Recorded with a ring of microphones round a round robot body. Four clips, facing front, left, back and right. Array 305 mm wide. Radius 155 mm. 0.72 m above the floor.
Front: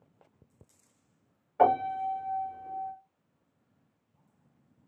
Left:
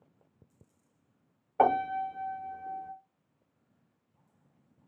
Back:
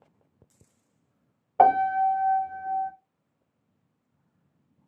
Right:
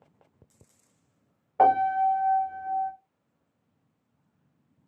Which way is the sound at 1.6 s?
Straight behind.